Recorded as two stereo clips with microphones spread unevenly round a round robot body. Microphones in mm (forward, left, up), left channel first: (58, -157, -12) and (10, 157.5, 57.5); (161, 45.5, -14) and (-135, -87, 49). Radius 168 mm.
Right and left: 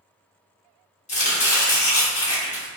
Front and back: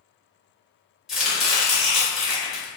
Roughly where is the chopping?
Ahead right.